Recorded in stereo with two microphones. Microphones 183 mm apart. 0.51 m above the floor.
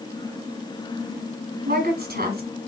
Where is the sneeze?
I don't hear a sneeze.